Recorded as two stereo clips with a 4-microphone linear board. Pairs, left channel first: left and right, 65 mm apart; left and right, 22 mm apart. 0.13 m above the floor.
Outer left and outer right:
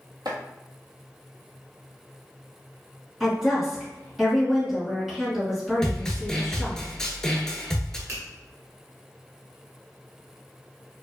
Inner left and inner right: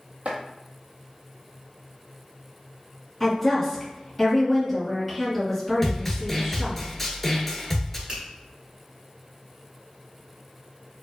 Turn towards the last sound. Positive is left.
turn(degrees=-35)  # may be behind; listen again after turning